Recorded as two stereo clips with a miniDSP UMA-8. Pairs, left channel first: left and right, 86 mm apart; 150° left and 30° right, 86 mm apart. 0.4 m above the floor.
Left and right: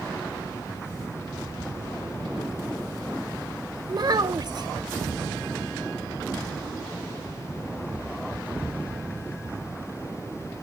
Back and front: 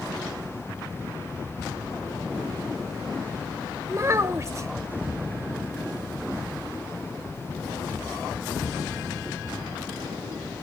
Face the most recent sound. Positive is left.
turn(degrees=-75)